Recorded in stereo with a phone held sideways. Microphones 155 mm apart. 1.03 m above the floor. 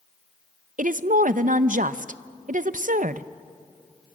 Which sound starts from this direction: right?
A woman speaking, at 0.8 s.